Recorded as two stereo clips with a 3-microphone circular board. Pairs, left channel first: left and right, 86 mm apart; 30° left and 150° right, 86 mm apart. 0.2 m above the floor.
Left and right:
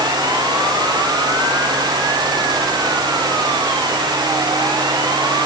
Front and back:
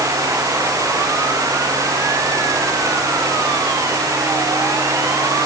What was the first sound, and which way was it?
Only background noise.